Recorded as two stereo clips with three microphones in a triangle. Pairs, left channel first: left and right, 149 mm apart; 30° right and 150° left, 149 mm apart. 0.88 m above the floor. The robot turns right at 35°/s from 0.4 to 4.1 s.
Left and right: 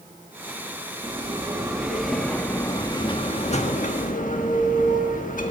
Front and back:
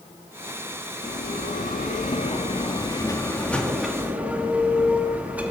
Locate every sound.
1.0 s a bell: 35° right, 1.5 m; by 5.5 s 70° left, 1.5 m